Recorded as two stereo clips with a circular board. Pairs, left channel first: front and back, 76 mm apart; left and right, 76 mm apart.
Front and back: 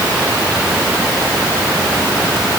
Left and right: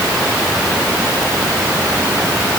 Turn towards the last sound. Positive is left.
No sound to turn to.